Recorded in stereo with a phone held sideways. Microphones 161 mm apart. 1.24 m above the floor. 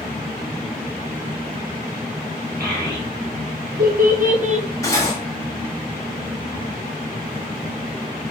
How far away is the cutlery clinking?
About 0.9 m.